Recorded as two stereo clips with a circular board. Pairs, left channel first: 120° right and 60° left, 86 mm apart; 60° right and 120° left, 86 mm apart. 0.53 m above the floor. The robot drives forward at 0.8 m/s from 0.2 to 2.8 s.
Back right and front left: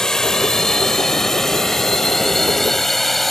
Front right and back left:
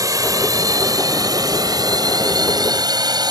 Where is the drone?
155° left; by 3.3 s 150° left.